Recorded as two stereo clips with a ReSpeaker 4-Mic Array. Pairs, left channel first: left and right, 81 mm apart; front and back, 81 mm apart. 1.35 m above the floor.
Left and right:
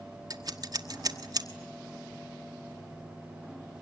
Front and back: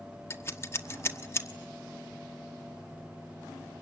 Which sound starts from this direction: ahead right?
Scissors, at 0.3 s.